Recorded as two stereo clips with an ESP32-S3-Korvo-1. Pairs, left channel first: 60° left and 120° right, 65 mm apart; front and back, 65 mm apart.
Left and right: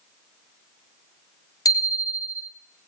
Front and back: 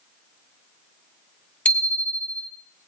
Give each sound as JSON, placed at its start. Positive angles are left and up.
{"t": 1.6, "sound": "a bicycle bell", "azimuth_deg": 70, "distance_m": 2.5}